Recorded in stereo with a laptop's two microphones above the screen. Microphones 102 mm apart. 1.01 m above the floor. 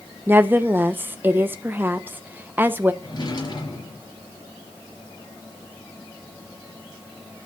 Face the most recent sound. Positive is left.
turn(degrees=45)  # may be behind; listen again after turning